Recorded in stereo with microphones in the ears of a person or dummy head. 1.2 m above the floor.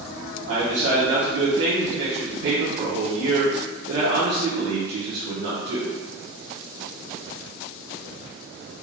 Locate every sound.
0.5 s a man speaking: 50° right (ahead or behind), 0.8 m